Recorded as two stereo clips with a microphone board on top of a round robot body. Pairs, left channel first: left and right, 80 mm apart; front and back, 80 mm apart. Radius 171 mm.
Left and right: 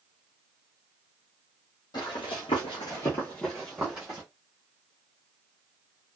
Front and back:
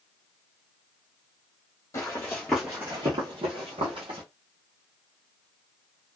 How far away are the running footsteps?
About 0.9 m.